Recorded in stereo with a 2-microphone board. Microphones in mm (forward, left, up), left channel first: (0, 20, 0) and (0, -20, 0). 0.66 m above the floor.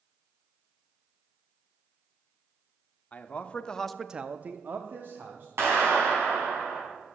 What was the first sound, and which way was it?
A man speaking, 35° left (ahead or behind).